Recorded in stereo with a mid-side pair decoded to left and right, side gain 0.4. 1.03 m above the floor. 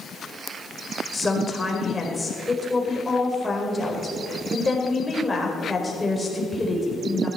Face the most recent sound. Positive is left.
turn(degrees=20)